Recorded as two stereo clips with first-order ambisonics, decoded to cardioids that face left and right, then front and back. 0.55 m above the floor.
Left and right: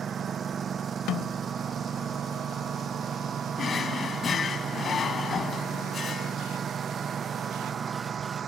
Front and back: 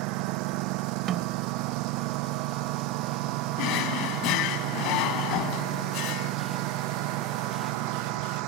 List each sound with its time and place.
0.0 s a lawn mower: 160° right
1.1 s a snare drum: 125° left
3.6 s a drawer: 25° left